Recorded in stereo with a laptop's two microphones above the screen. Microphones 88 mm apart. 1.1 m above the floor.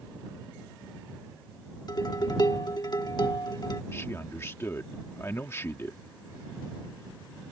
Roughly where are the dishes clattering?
Left.